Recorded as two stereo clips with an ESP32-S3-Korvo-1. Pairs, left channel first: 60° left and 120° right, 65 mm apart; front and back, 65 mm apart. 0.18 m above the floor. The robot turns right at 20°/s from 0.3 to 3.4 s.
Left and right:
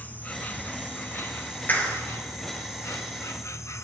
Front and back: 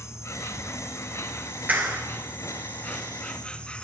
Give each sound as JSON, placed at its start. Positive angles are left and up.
{"t": 0.0, "sound": "an insect", "azimuth_deg": 5, "distance_m": 0.7}
{"t": 1.7, "sound": "a clap", "azimuth_deg": 120, "distance_m": 2.5}